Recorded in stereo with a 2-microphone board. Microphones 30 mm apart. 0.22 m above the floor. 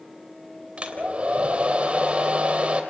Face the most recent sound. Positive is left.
turn(degrees=-35)  # may be behind; listen again after turning